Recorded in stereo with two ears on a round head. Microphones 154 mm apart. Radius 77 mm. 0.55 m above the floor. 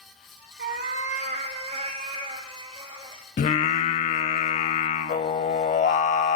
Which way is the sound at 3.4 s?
45° left (ahead or behind).